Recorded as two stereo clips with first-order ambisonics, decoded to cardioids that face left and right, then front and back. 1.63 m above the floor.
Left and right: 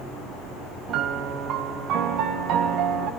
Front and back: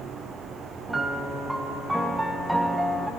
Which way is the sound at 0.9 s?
95° right.